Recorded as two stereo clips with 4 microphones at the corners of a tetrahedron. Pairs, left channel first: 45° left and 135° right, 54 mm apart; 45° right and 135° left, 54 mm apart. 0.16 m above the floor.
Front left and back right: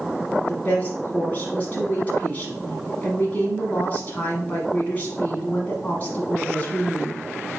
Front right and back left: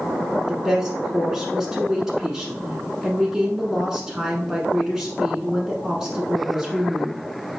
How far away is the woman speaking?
About 1.2 m.